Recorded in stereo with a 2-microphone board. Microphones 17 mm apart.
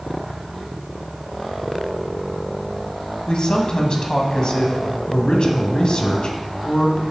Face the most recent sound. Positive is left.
turn(degrees=50)  # may be behind; listen again after turning